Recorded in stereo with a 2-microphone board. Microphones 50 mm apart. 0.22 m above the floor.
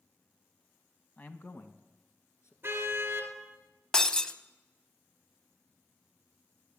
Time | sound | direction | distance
1.2 | a man speaking | 35° left (ahead or behind) | 1.2 m
2.6 | a car horn | 45° right (ahead or behind) | 2 m
3.9 | breaking glass | 15° left (ahead or behind) | 0.6 m